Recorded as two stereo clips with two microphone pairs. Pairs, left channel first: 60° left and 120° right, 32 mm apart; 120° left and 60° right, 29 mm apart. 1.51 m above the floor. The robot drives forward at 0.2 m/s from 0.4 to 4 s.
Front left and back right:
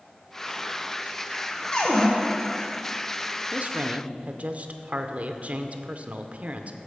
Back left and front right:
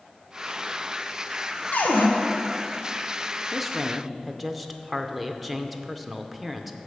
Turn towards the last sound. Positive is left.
turn(degrees=-150)